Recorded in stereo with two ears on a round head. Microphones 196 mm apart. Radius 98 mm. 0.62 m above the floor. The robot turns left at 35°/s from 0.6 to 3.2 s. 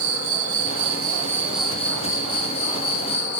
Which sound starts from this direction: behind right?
An insect, at 0.0 s.